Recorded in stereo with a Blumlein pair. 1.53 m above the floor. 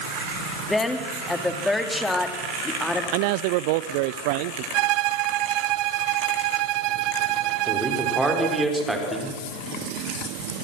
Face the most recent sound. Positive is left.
turn(degrees=-5)